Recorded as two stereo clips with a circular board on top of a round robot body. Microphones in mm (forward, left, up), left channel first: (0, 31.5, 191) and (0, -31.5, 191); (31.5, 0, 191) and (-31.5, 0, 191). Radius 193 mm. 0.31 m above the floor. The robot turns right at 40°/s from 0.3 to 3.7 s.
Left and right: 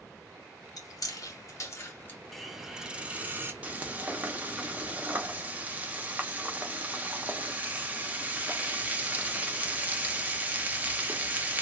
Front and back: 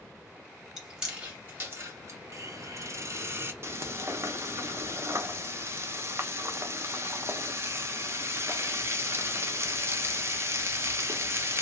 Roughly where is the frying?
Behind right.